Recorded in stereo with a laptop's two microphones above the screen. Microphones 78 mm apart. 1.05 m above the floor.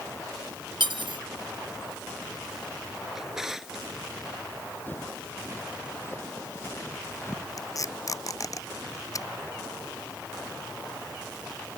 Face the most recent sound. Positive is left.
turn(degrees=45)  # may be behind; listen again after turning